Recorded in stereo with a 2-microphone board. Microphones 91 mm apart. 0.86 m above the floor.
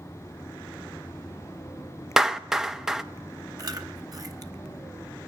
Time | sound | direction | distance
2.2 | a clap | 5° right (ahead or behind) | 0.6 m
3.6 | chewing | 40° right (ahead or behind) | 0.9 m